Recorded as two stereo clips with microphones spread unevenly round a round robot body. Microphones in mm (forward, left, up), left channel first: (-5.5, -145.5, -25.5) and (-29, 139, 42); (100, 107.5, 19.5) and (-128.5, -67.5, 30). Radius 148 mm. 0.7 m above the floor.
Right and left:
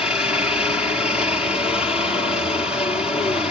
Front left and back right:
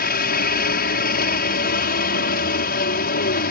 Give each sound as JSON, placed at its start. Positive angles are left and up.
{"t": 0.0, "sound": "a helicopter", "azimuth_deg": -5}